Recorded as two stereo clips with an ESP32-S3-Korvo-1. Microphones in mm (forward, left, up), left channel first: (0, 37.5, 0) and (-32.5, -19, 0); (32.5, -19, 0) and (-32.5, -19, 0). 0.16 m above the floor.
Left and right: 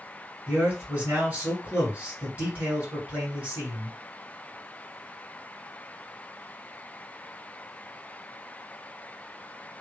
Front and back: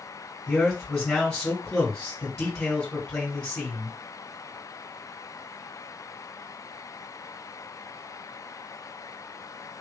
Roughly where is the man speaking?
Right.